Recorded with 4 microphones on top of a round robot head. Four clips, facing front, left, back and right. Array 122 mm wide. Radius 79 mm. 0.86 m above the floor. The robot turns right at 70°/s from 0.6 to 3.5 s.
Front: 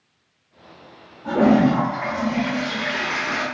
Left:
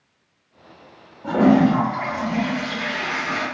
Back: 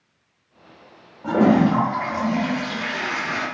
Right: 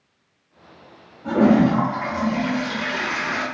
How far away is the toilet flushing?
About 0.8 m.